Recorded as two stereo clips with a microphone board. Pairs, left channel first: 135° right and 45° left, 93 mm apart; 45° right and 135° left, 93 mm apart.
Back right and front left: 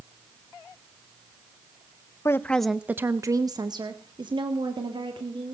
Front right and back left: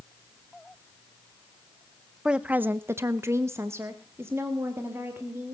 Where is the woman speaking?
150° right, 0.6 m; by 5.5 s 70° left, 2 m.